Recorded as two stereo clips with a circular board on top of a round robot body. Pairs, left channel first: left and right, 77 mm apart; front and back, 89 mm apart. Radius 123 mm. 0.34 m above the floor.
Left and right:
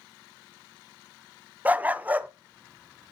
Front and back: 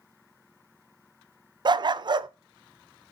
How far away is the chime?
I don't hear a chime.